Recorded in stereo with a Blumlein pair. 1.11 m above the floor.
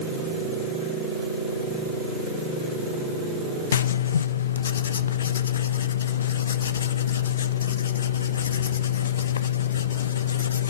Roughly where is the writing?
Left.